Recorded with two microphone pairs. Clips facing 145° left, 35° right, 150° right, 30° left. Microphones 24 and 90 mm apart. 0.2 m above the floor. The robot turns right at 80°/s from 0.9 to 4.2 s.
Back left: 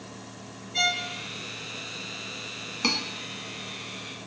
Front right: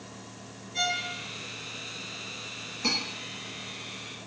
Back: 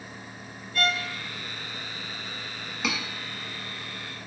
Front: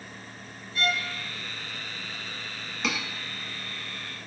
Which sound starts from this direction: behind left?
Cutlery clinking, at 2.8 s.